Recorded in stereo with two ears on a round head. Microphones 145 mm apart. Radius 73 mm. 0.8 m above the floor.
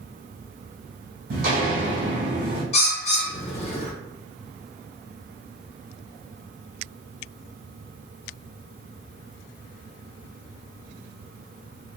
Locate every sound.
1.3 s footsteps: 60° right (ahead or behind), 1.5 m; by 2.6 s 35° right (ahead or behind), 1.8 m
2.7 s a bird: 40° left (ahead or behind), 0.7 m